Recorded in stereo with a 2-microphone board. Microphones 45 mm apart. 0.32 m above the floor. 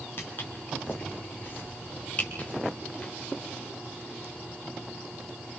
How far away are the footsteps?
About 5 m.